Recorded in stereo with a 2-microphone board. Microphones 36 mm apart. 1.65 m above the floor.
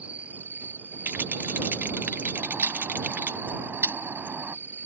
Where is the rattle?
55° right (ahead or behind).